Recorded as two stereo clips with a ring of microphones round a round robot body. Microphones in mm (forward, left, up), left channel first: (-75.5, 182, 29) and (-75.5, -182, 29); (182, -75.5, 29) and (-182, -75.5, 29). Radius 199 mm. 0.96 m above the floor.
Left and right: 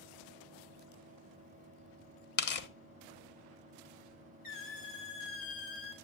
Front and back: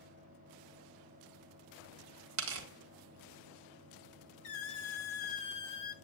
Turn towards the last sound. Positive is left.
turn(degrees=20)